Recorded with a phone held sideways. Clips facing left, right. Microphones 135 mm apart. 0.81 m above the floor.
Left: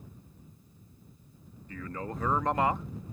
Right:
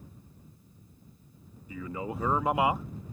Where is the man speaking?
10° right (ahead or behind).